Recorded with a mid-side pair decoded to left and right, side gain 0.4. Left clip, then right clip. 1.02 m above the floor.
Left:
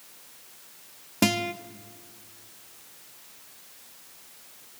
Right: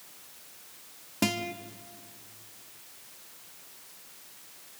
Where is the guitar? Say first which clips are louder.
Left 5 dB; 35° left, 0.9 m.